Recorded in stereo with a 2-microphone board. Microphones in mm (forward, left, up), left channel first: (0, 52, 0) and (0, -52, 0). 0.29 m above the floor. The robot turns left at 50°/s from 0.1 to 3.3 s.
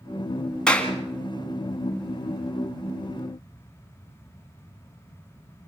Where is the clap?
5° left (ahead or behind), 2.5 m; by 0.9 s 20° left (ahead or behind), 2.5 m.